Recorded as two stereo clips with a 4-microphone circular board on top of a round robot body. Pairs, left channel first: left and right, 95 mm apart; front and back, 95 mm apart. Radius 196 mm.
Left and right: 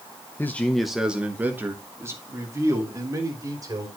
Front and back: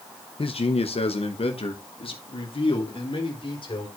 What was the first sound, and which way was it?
A man speaking, 25° left.